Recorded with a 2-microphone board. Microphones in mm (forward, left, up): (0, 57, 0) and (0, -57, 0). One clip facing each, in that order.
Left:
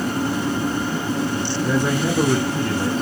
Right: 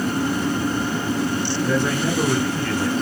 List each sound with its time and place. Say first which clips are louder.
1.6 s a man speaking: left 2 dB; 10° left (ahead or behind), 1.3 m; by 2.9 s 30° left (ahead or behind), 2.0 m